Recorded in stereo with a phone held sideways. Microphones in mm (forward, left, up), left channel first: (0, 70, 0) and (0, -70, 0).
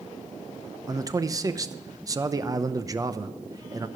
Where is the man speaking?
25° right (ahead or behind), 0.7 m.